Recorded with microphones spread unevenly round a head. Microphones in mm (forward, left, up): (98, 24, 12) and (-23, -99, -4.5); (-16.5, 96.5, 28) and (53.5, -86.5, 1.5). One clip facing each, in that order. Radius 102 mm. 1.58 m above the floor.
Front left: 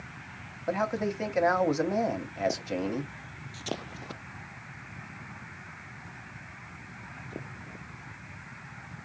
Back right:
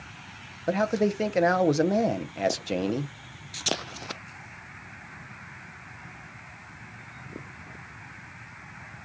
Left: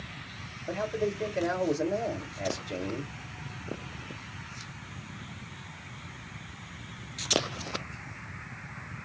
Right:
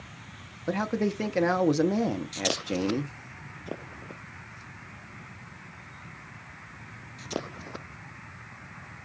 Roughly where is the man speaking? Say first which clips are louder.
Back right 5 dB, right 3 dB; right.